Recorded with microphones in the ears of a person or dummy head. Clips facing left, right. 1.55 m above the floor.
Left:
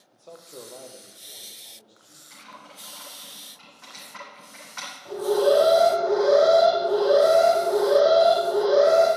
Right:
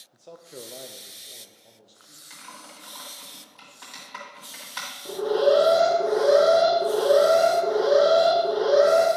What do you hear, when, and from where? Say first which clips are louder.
0.1 s a man speaking: right 1 dB; centre (ahead or behind), 0.6 m; by 2.2 s 20° right (ahead or behind), 1.8 m
2.3 s typing on a keyboard: even; 50° right (ahead or behind), 2 m
5.0 s an alarm: even; 35° right (ahead or behind), 1.1 m